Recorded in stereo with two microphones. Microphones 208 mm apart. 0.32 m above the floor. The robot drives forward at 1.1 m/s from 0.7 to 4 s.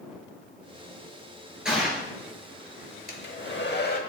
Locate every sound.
1.6 s a gunshot: 5° right (ahead or behind), 2.5 m
3.1 s a hair dryer: 45° left (ahead or behind), 0.9 m; by 4.0 s 40° left (ahead or behind), 0.9 m